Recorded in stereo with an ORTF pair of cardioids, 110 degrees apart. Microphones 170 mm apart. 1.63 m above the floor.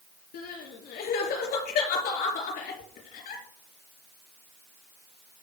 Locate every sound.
0.3 s crying: 65° left, 3.5 m